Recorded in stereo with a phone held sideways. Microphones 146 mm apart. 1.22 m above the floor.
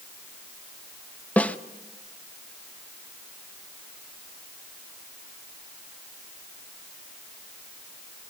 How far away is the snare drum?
About 0.7 m.